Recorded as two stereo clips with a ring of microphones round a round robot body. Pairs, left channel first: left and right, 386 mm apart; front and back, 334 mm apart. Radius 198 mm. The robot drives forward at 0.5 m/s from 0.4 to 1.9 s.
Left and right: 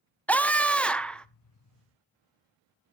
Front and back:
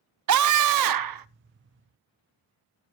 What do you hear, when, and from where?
0.3 s a scream: 175° left, 0.7 m; by 1.3 s straight behind, 1.0 m